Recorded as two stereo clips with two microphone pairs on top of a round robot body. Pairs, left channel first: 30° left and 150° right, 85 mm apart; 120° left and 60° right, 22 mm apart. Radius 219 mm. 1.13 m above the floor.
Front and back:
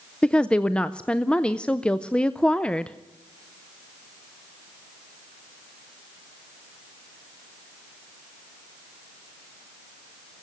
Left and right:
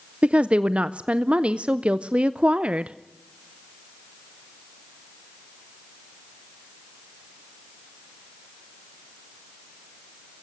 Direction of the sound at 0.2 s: 50° right.